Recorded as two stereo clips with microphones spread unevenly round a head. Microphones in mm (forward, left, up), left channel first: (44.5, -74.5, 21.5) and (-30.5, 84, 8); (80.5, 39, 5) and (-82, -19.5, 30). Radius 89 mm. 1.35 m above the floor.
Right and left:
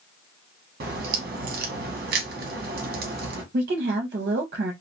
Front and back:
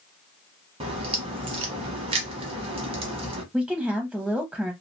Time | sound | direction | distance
0.8 | a crack | 150° left | 0.7 m
3.5 | a woman speaking | 110° left | 0.6 m